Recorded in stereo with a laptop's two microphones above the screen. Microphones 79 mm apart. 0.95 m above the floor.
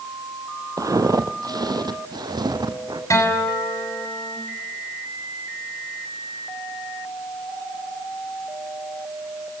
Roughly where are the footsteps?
Right.